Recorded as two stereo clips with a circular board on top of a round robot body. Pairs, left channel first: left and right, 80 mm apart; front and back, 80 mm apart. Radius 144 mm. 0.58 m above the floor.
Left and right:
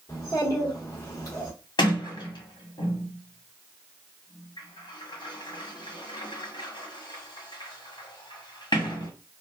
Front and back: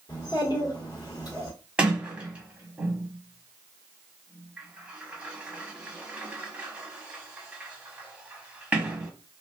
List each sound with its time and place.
0.1 s a child speaking: 40° left, 1.2 m
1.8 s a sliding door: 105° left, 1.3 m